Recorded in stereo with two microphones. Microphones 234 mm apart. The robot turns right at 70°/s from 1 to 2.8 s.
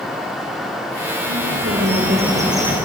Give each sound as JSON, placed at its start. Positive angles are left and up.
{"t": 1.3, "sound": "a bird", "azimuth_deg": -95, "distance_m": 5.0}